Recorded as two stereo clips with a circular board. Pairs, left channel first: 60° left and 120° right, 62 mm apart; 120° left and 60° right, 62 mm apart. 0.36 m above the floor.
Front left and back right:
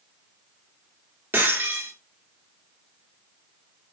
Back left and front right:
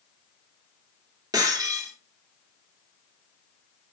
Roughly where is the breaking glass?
Right.